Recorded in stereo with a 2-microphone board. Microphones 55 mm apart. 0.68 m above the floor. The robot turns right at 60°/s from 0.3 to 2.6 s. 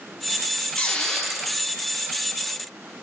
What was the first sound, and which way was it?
A squeak, 145° left.